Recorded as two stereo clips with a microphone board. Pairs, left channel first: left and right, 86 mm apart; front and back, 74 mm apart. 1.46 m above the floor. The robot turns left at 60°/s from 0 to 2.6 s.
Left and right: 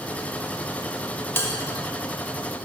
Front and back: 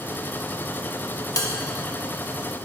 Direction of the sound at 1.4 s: 30° left.